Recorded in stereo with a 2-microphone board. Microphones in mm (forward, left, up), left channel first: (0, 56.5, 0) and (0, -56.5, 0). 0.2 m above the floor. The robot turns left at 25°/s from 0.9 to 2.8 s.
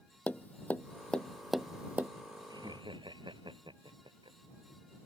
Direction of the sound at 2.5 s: 35° right (ahead or behind).